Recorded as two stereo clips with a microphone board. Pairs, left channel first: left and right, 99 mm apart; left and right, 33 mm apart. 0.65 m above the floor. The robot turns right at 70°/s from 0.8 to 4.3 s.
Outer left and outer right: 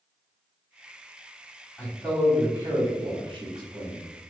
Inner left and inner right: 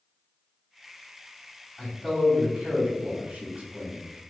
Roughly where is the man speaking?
Left.